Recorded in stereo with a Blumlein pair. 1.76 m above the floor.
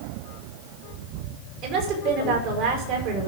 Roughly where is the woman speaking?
Ahead right.